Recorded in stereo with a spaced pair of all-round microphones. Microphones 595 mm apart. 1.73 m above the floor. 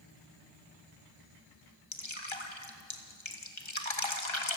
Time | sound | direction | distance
1.9 | dripping | 55° left (ahead or behind) | 2.5 m